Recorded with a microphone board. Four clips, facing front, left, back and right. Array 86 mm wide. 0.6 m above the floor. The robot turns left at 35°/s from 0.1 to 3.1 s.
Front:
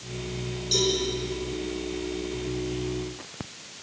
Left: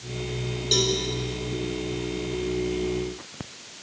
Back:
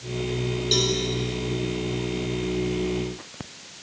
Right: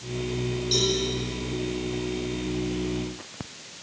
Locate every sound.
0.7 s a cowbell: 140° left, 4.5 m; by 0.9 s 130° left, 4.5 m